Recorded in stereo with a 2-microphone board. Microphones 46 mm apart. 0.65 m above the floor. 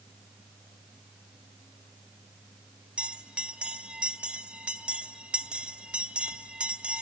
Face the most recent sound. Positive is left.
turn(degrees=-25)  # may be behind; listen again after turning